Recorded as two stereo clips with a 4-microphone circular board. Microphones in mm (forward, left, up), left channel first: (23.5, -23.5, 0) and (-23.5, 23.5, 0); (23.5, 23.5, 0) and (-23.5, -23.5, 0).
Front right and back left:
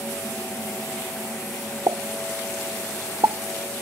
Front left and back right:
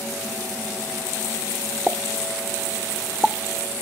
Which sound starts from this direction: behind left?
A pop, at 1.9 s.